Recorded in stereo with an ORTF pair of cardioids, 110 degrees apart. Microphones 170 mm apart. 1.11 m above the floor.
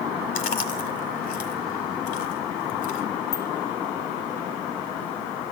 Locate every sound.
0.3 s chewing: 60° left, 1.5 m
3.3 s a bicycle bell: 70° left, 2 m